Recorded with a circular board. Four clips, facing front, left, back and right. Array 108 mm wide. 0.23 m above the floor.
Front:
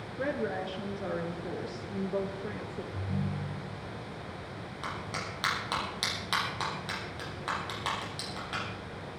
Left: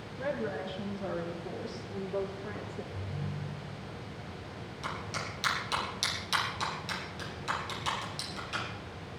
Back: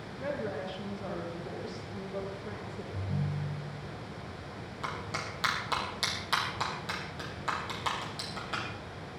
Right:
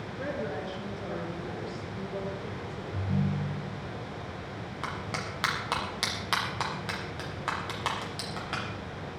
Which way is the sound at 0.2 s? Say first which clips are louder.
Even, front 3 dB; 10° right.